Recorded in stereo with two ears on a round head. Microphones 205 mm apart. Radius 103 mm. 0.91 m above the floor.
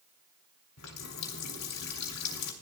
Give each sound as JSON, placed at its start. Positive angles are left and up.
{"t": 0.8, "sound": "a running tap", "side_deg": 80, "distance_m": 3.0}